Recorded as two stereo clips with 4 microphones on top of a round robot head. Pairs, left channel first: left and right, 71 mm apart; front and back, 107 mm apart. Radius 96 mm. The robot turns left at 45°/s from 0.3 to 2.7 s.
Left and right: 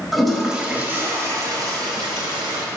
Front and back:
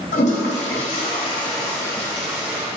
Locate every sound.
0.1 s a toilet flushing: straight ahead, 0.6 m; by 2.6 s 110° right, 0.6 m